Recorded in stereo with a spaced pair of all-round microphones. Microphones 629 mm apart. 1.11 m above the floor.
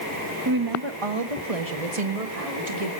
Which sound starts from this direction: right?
A woman speaking, at 0.5 s.